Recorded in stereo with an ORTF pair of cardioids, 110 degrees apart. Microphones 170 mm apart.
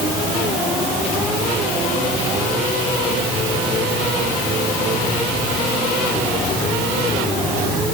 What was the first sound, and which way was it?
Only background noise.